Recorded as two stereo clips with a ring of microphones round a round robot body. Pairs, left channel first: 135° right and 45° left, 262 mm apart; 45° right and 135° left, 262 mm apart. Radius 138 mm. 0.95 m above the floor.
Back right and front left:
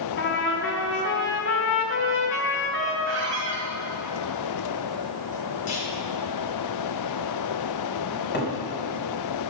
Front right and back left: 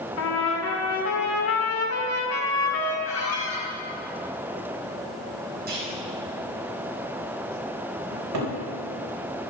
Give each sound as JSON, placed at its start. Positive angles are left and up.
{"t": 0.2, "sound": "a trumpet", "azimuth_deg": -85, "distance_m": 2.0}
{"t": 3.0, "sound": "a squeak", "azimuth_deg": -5, "distance_m": 3.5}
{"t": 5.7, "sound": "a clunk", "azimuth_deg": -170, "distance_m": 4.0}
{"t": 8.1, "sound": "a cupboard door", "azimuth_deg": 170, "distance_m": 3.5}